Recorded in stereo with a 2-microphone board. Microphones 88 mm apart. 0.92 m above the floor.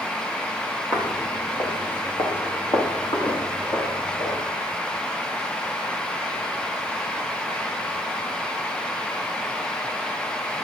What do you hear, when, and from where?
0.9 s footsteps: 45° left (ahead or behind), 1.9 m; by 4.4 s 75° left (ahead or behind), 5.5 m